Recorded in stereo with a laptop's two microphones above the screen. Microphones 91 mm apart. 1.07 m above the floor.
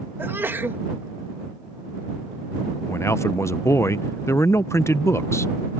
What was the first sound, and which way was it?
A sneeze, 25° right (ahead or behind).